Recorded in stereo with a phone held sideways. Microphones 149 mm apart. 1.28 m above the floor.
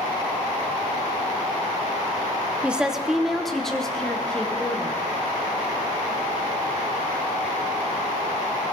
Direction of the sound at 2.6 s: 10° right (ahead or behind).